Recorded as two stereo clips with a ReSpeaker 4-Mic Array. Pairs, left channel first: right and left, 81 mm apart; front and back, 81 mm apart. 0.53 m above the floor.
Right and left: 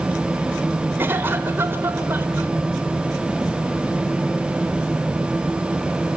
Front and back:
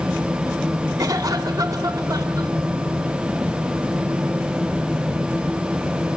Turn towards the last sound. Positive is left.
turn(degrees=150)